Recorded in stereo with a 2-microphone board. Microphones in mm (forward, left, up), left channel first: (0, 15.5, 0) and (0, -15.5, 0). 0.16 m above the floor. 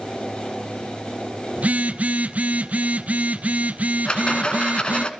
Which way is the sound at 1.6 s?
55° right (ahead or behind).